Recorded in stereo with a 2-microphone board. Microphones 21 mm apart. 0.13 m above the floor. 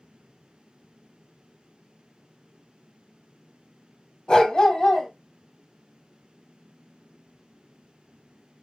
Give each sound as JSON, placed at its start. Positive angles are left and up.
{"t": 4.3, "sound": "a dog barking", "side_deg": 40, "distance_m": 1.4}